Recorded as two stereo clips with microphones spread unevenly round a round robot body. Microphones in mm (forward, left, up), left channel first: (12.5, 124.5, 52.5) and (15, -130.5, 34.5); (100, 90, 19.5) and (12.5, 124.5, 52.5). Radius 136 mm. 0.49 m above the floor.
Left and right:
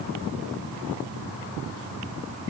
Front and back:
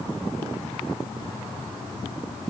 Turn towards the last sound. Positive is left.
No sound to turn to.